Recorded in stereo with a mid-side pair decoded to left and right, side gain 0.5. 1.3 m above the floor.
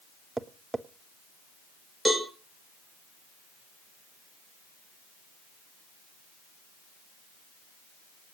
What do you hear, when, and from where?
0.4 s tapping: 10° right, 1.0 m
2.0 s a cowbell: 5° left, 7 m